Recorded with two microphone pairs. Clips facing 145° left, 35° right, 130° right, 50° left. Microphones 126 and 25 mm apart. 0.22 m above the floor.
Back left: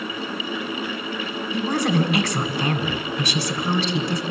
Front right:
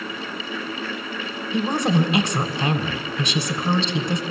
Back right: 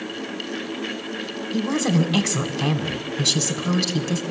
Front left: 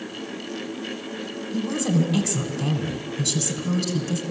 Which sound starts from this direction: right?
A woman speaking, at 1.5 s.